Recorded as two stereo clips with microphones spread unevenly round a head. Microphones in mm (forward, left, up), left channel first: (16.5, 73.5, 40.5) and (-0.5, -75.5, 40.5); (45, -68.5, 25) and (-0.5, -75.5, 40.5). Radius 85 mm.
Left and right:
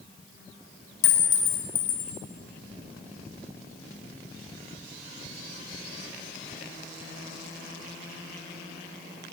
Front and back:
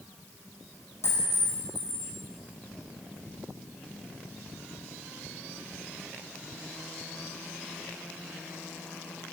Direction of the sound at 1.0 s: 85° left.